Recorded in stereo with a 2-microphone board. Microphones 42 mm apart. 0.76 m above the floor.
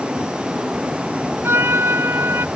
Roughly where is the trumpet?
Right.